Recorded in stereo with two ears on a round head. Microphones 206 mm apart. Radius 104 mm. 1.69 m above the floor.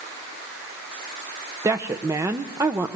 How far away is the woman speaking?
About 0.8 m.